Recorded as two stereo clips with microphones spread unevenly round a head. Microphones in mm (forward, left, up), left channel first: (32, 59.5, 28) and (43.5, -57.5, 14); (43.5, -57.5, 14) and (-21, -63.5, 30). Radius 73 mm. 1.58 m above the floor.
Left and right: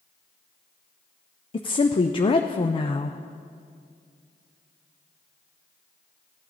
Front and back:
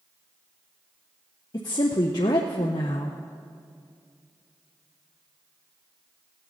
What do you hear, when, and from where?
1.5 s a woman speaking: 45° left, 0.5 m